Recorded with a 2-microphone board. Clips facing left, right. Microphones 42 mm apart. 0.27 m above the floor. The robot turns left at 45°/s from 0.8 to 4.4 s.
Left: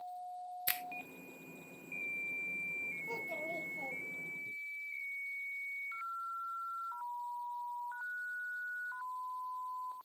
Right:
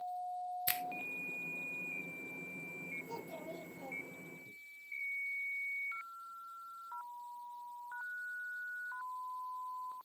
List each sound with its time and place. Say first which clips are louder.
0.7 s a finger snap: left 1 dB; 5° left (ahead or behind), 0.9 m
3.0 s a child speaking: left 5 dB; 120° left, 3.5 m; by 4.5 s 55° left, 3.5 m